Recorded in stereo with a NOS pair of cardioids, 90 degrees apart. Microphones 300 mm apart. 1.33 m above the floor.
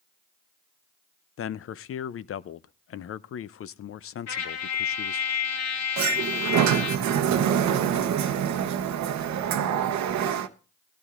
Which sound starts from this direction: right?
A sliding door, at 6.0 s.